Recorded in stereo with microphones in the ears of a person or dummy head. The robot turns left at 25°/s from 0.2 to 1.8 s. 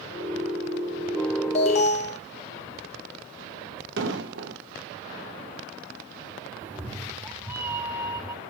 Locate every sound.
1.6 s an alarm: 40° left (ahead or behind), 1.1 m
4.0 s an explosion: 75° right (ahead or behind), 1.4 m
6.6 s a cat meowing: 20° right (ahead or behind), 1.4 m